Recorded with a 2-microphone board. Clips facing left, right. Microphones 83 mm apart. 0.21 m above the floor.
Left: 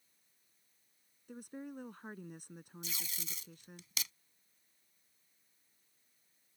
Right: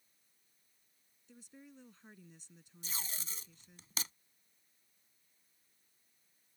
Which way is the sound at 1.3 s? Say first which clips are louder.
Left 11 dB; 60° left (ahead or behind).